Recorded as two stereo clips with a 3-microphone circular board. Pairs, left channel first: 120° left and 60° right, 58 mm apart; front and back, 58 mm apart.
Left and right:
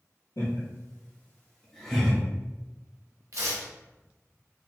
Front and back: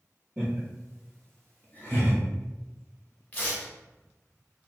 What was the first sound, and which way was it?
Laughter, 105° left.